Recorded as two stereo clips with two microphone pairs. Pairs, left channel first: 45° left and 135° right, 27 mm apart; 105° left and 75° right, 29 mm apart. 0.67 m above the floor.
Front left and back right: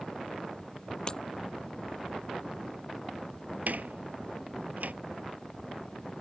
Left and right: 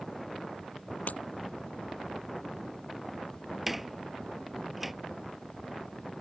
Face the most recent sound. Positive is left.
turn(degrees=-155)